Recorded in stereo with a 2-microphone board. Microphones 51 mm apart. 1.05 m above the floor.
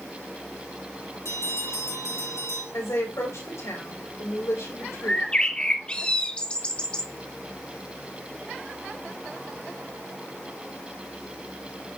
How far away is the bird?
About 1.1 m.